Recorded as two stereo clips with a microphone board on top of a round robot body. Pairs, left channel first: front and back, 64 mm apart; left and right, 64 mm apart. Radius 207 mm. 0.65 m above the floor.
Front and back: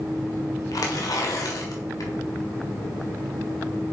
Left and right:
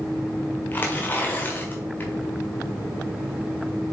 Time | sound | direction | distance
0.7 | tearing paper | 25° left | 1.2 m